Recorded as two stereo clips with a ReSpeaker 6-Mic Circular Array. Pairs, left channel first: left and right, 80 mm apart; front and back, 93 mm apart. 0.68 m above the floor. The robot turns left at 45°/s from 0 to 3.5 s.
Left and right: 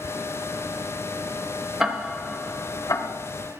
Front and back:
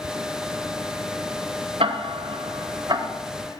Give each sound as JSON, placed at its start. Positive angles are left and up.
{"t": 1.8, "sound": "ticking", "azimuth_deg": -175, "distance_m": 1.3}